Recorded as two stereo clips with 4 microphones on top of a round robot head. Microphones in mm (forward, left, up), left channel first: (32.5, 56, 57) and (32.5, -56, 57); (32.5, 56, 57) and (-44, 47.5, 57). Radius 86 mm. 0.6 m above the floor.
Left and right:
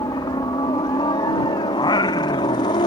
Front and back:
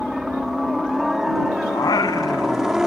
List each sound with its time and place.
0.0 s a helicopter: 100° left; by 2.9 s 105° left
1.7 s singing: 40° left